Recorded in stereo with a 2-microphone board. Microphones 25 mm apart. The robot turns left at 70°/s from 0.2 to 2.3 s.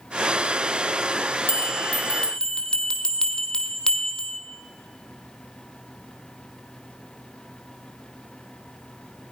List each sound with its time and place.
1.5 s a bell: 90° left, 1.8 m; by 4.4 s 30° left, 1.8 m